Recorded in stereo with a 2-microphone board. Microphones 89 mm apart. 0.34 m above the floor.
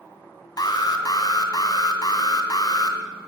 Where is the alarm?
50° left (ahead or behind), 1.4 m.